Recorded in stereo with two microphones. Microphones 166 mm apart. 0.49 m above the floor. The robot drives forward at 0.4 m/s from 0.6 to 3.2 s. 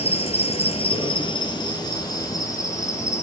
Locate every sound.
0.0 s an insect: 40° left (ahead or behind), 0.8 m; by 3.2 s 15° left (ahead or behind), 1.7 m